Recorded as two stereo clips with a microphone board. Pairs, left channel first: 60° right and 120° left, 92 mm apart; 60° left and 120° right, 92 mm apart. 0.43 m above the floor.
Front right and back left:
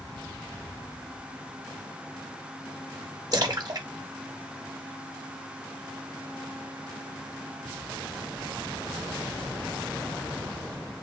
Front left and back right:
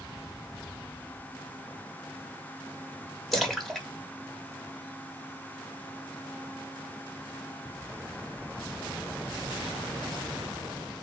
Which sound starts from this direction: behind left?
A splash, at 3.3 s.